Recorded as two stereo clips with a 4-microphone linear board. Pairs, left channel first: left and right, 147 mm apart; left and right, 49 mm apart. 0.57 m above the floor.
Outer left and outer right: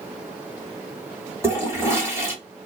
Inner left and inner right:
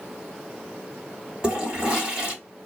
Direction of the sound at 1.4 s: 20° right (ahead or behind).